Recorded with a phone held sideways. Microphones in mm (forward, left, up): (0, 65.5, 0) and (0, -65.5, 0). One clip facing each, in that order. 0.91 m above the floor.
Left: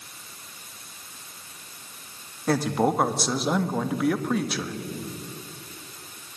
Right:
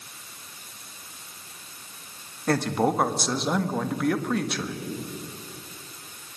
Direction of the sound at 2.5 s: Centre (ahead or behind).